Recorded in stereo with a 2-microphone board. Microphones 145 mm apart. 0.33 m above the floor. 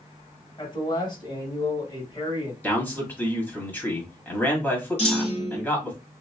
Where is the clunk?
45° left (ahead or behind), 1.3 m.